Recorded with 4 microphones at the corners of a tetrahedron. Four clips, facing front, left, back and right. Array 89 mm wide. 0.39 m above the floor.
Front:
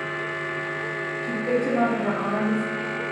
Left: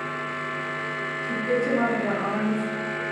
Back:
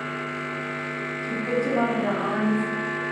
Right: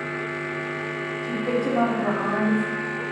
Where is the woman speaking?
60° right, 2.0 m.